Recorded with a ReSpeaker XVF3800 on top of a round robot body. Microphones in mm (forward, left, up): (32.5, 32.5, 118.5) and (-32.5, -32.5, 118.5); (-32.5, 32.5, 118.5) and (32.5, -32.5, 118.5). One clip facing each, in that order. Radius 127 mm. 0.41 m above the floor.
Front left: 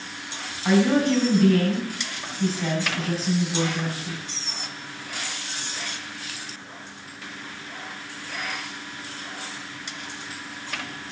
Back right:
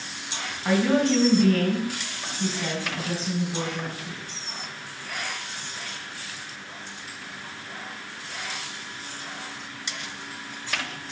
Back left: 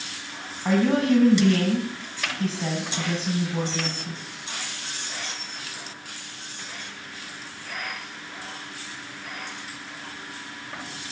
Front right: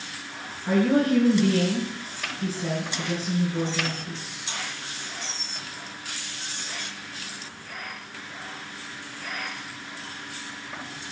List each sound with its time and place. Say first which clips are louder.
0.7 s a woman speaking: front left 2 dB, even; 130° left, 4.5 m